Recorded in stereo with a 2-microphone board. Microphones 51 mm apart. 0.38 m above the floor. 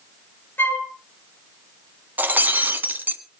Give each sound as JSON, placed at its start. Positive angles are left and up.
{"t": 0.6, "sound": "a flute", "side_deg": 45, "distance_m": 2.5}
{"t": 2.2, "sound": "breaking glass", "side_deg": -35, "distance_m": 1.3}